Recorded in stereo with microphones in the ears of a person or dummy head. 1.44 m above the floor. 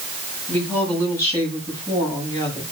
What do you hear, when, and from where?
0.5 s a woman speaking: 10° left (ahead or behind), 8 m; by 2.6 s 20° left (ahead or behind), 8.5 m